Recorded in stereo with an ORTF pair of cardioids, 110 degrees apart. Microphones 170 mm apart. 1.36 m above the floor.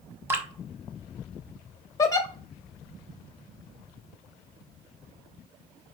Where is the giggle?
20° left, 0.5 m.